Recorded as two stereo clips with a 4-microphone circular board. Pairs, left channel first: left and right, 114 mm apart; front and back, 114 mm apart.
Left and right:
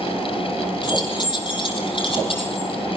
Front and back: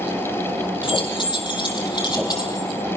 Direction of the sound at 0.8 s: 40° left.